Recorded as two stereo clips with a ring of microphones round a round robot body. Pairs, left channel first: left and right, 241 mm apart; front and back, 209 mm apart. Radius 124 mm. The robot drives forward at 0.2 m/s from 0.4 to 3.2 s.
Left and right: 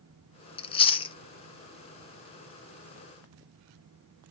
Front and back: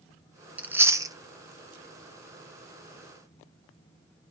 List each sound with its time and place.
0.6 s chewing: 105° left, 0.6 m; by 1.1 s 130° left, 0.7 m